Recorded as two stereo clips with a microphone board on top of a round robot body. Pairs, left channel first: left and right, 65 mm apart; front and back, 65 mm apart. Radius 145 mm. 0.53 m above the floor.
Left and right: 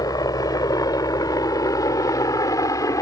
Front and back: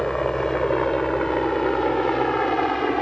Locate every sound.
0.0 s a helicopter: 80° left; by 3.0 s 85° left